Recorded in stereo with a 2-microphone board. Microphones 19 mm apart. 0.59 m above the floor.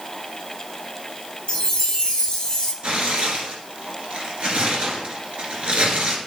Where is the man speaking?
I don't hear a man speaking.